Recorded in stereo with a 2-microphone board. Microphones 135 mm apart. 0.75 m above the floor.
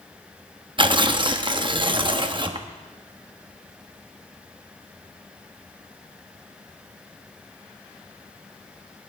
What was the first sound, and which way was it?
Tearing paper, 35° right (ahead or behind).